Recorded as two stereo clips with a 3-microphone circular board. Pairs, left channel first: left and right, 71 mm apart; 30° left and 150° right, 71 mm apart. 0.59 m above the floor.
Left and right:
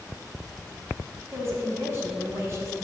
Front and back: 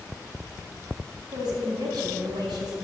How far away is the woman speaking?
About 4.5 m.